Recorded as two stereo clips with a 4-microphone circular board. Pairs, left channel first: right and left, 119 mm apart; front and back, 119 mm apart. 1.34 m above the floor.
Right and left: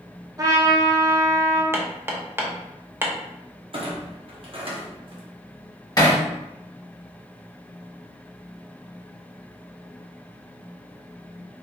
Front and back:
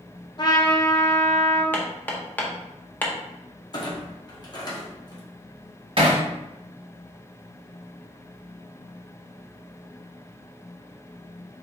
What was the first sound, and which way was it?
A trumpet, 40° left.